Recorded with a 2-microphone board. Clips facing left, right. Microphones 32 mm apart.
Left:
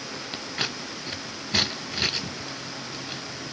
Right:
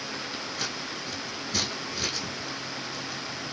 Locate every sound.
0.3 s scissors: 50° left (ahead or behind), 0.7 m